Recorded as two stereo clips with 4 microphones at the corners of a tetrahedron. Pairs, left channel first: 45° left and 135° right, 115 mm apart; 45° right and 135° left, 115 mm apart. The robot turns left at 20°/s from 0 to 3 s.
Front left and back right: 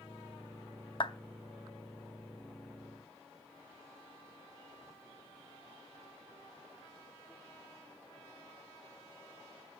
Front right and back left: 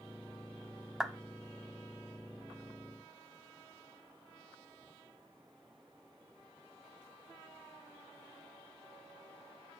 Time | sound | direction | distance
1.0 | a clap | 50° left | 0.7 m